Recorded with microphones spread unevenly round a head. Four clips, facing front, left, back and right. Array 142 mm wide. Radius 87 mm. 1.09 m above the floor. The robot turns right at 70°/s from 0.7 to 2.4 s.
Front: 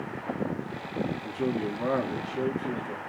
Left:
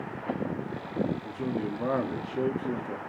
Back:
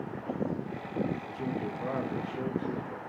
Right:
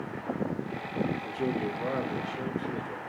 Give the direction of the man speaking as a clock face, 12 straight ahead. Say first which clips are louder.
Right 1 dB, front 5 dB; 1 o'clock.